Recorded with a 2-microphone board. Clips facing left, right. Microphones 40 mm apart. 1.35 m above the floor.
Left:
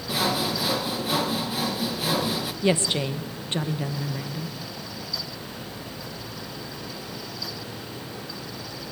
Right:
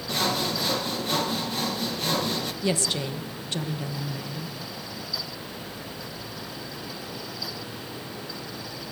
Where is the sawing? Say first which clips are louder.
Left 1 dB; 5° left (ahead or behind), 1.5 m.